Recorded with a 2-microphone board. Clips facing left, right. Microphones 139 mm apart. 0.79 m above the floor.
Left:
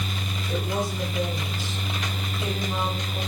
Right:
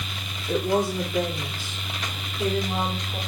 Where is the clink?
I don't hear a clink.